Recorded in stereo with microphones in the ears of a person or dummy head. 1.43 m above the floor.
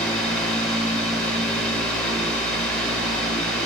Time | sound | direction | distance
0.0 | a fan | 10° left (ahead or behind) | 1.8 m